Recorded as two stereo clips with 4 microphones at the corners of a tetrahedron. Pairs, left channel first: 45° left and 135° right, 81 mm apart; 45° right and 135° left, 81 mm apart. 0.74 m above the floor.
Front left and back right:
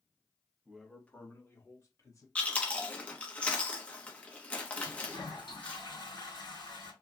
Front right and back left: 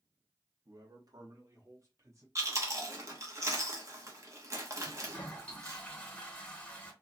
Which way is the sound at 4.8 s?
30° left.